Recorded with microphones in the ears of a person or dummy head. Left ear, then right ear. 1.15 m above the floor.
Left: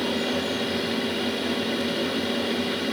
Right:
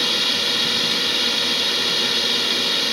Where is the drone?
35° right (ahead or behind).